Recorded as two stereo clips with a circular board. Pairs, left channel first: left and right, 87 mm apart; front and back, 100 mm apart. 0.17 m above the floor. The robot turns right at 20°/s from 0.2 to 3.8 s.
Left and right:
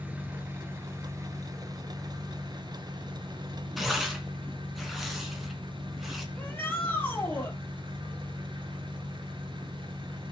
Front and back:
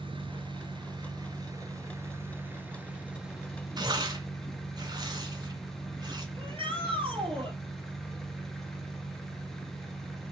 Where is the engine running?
160° right, 1.6 m; by 10.3 s 90° right, 1.6 m.